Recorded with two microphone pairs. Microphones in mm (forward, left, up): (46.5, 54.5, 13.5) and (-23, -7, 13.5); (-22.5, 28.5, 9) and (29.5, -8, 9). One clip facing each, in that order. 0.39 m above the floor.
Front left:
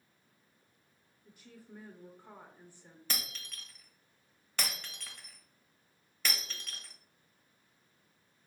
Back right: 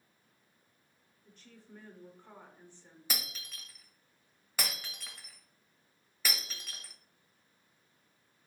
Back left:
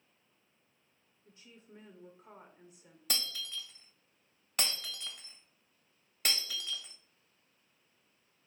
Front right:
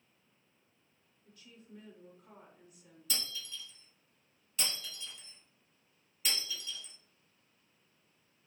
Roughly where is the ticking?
No ticking in this recording.